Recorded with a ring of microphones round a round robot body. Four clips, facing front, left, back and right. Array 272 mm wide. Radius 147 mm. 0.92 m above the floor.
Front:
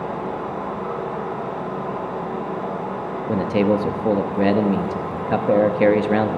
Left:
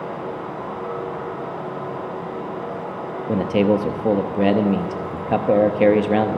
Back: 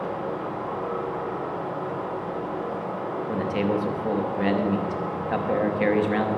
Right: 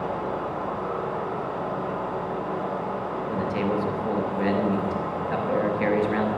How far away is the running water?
About 6 m.